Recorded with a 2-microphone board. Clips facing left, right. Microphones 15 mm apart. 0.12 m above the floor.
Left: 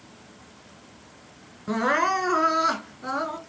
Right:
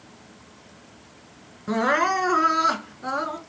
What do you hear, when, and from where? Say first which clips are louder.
1.7 s crying: right 1 dB; 5° right (ahead or behind), 1.5 m